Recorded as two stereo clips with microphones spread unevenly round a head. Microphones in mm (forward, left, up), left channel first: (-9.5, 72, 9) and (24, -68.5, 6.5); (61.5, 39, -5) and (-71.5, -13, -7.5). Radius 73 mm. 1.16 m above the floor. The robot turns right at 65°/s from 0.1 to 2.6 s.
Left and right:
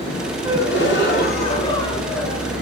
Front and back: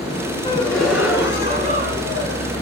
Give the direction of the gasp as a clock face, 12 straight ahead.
9 o'clock.